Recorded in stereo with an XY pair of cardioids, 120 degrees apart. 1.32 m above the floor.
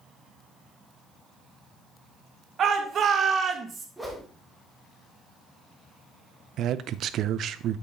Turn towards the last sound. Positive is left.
turn(degrees=-60)